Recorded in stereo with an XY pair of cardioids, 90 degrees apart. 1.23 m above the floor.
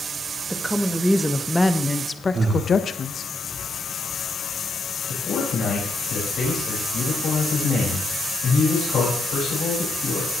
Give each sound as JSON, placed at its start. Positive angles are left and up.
{"t": 0.5, "sound": "a woman speaking", "azimuth_deg": -10, "distance_m": 1.8}
{"t": 2.3, "sound": "breathing", "azimuth_deg": -55, "distance_m": 4.0}
{"t": 5.1, "sound": "a man speaking", "azimuth_deg": 70, "distance_m": 5.5}